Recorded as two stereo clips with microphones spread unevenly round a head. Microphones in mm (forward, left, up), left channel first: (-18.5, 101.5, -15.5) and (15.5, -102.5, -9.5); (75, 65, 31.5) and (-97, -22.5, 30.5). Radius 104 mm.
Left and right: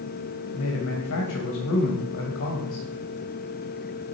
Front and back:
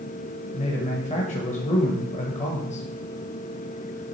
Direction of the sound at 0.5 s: 80° left.